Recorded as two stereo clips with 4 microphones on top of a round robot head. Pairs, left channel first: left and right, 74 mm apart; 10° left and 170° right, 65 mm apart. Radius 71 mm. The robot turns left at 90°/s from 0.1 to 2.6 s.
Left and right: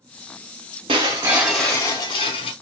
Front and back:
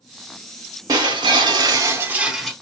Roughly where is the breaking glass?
Behind right.